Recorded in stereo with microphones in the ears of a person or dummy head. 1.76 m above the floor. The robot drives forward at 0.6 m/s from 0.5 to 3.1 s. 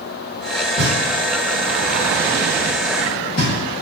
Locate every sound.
0.8 s knocking: 40° left (ahead or behind), 2 m; by 3.5 s 25° left (ahead or behind), 3.5 m